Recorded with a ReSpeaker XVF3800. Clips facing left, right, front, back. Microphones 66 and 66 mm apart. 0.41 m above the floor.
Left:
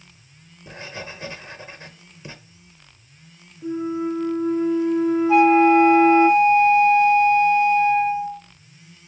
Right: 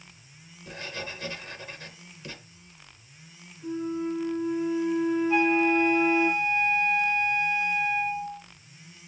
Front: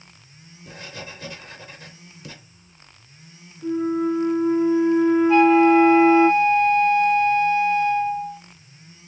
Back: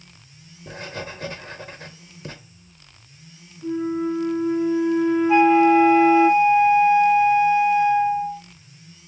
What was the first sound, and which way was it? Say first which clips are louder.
Writing: left 2 dB, back 5 dB; 150° left.